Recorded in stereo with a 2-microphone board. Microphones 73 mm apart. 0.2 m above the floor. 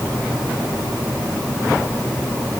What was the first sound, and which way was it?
Only background noise.